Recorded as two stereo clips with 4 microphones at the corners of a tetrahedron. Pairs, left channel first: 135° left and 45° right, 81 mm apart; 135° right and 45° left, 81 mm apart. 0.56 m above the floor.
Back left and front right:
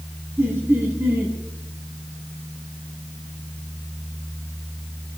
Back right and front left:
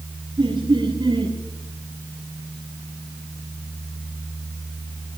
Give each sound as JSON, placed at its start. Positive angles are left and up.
{"t": 0.4, "sound": "laughter", "azimuth_deg": 20, "distance_m": 4.0}